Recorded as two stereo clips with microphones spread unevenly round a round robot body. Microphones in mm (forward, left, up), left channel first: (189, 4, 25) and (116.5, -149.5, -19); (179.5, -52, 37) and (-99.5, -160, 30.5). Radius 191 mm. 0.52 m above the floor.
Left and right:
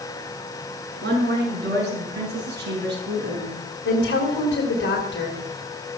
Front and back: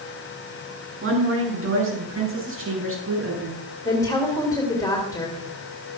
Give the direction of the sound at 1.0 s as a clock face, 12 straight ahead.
4 o'clock.